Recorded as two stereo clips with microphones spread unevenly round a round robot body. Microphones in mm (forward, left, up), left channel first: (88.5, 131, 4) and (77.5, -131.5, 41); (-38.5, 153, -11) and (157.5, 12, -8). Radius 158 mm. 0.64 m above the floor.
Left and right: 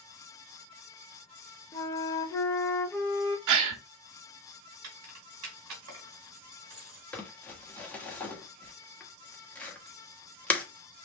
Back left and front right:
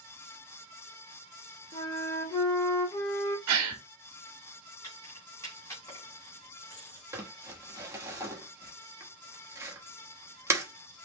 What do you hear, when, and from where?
1.7 s a flute: 110° left, 0.8 m
3.5 s a gasp: 75° right, 0.7 m
4.8 s keys jangling: 135° right, 3 m
7.1 s crumpling: 30° left, 1.1 m